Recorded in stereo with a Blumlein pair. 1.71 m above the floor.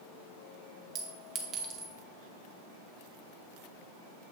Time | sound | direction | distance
0.9 | a clink | 30° right | 1.7 m